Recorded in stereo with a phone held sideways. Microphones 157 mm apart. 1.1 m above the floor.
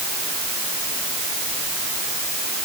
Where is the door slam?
No door slam in this recording.